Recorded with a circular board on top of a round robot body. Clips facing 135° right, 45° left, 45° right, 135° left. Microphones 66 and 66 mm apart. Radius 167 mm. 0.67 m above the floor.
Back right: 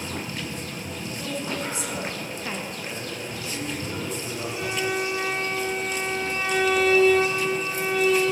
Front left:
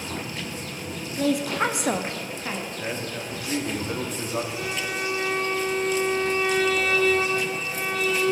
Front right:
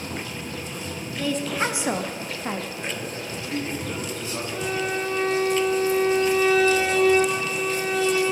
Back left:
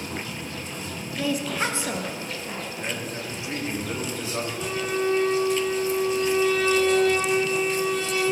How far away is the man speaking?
About 2 m.